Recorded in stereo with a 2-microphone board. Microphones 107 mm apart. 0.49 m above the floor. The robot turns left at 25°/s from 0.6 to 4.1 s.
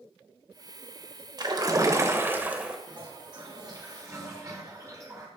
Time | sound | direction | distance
1.4 | a splash | 135° right | 1.2 m
2.9 | a toilet flushing | 105° right | 1.8 m